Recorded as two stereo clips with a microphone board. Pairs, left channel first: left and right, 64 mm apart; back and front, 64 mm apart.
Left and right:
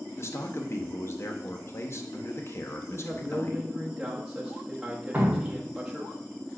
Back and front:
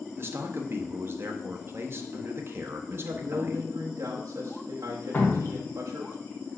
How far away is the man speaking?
About 0.8 m.